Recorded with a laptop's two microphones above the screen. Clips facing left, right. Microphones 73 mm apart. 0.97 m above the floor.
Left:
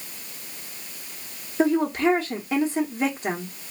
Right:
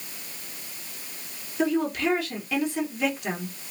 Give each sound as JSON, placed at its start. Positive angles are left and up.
{"t": 1.6, "sound": "a woman speaking", "side_deg": 35, "distance_m": 0.9}